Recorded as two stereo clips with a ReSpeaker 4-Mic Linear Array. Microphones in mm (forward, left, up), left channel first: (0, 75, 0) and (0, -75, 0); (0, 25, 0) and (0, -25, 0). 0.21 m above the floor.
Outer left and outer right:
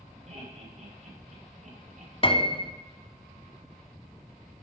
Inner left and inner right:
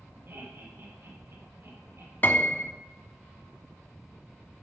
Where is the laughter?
50° right (ahead or behind), 7 m; by 2.1 s 55° right (ahead or behind), 7 m.